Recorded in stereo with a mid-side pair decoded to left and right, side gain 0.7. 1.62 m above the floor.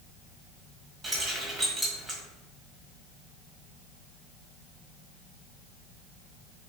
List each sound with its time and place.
1.0 s keys jangling: 20° right, 1.6 m